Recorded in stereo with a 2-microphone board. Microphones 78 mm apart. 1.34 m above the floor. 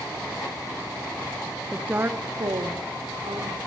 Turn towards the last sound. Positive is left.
turn(degrees=-75)  # may be behind; listen again after turning